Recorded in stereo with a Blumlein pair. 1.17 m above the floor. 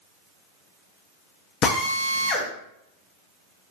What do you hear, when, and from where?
1.6 s a drill: 35° left, 0.6 m